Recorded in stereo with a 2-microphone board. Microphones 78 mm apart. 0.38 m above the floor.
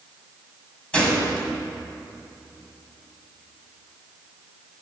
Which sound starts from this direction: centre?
A gunshot, at 0.9 s.